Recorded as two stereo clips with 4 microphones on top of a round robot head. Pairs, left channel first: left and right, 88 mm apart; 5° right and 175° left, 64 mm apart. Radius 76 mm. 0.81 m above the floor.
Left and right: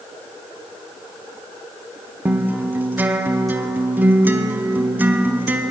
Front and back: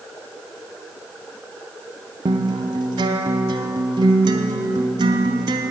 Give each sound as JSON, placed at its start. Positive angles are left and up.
{"t": 2.2, "sound": "a guitar", "azimuth_deg": -160, "distance_m": 0.6}